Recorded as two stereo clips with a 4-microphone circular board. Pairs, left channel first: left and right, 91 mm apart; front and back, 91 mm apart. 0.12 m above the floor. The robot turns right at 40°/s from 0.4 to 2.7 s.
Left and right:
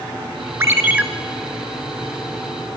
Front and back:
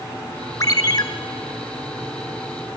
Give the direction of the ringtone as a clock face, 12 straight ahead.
1 o'clock.